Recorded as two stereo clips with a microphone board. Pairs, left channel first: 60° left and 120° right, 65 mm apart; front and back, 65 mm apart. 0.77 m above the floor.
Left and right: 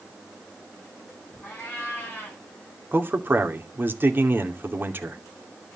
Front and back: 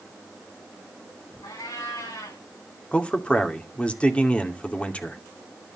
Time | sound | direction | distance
1.4 | a cat meowing | 5° right | 7 m
2.9 | a man speaking | 70° right | 2.5 m